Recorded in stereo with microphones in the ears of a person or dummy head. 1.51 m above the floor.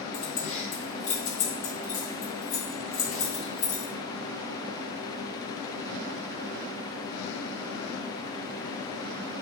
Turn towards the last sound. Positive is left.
turn(degrees=40)  # may be behind; listen again after turning